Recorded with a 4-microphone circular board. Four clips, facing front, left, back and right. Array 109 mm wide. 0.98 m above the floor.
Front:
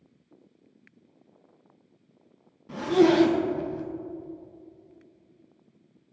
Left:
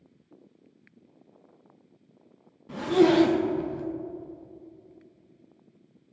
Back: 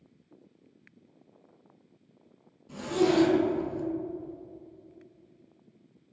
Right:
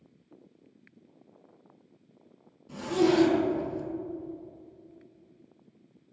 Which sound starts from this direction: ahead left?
A zipper, at 2.7 s.